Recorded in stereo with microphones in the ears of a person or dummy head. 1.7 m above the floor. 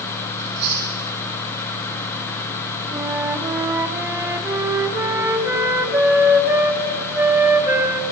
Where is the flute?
15° right (ahead or behind), 0.6 m.